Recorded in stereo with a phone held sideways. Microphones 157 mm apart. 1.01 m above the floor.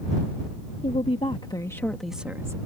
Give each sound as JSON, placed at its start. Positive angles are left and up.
{"t": 0.8, "sound": "a woman speaking", "side_deg": 50}